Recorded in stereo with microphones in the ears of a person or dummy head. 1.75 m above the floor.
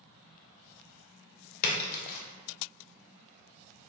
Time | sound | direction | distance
1.6 | a splash | 55° left (ahead or behind) | 0.6 m